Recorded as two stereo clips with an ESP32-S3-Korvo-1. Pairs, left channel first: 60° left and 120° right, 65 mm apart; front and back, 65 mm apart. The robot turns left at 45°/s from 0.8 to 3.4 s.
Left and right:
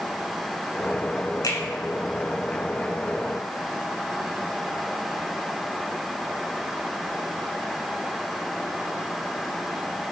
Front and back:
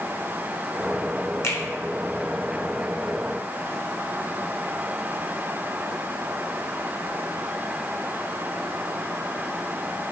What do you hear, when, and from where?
1.4 s a finger snap: 45° left, 2 m; by 1.6 s 35° left, 2 m